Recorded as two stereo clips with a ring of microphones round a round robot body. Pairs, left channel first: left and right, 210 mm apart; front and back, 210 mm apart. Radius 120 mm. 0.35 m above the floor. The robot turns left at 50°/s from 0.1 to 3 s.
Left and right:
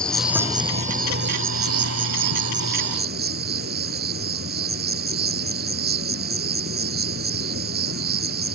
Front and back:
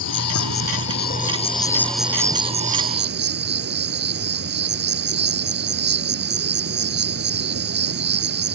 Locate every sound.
0.0 s an insect: 5° left; by 8.6 s 140° right